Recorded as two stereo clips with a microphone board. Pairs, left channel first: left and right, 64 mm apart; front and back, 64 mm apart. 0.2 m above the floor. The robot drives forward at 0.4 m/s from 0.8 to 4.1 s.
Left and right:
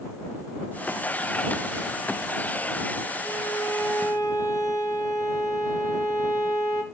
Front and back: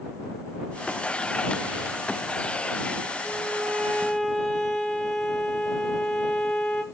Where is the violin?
55° left, 0.9 m; by 6.8 s 80° left, 0.7 m.